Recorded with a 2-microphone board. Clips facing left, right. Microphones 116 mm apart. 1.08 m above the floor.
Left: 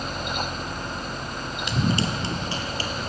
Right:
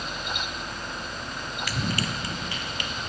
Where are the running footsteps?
20° left (ahead or behind), 1.1 m; by 3.1 s 35° left (ahead or behind), 1.7 m.